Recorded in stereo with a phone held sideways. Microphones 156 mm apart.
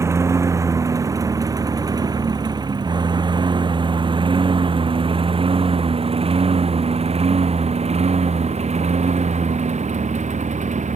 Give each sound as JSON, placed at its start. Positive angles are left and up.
{"t": 0.0, "sound": "a lawn mower", "side_deg": -20}